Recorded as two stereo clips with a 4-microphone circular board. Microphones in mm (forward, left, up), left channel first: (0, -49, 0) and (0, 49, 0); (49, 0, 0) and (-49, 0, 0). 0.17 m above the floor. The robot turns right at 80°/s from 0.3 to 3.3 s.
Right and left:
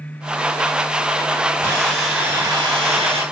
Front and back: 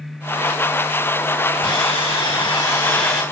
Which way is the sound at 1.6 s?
35° right.